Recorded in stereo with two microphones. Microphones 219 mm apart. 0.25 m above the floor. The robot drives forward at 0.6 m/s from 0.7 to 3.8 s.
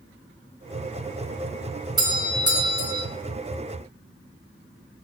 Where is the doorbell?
20° right (ahead or behind), 2.0 m; by 3.1 s 15° right (ahead or behind), 2 m.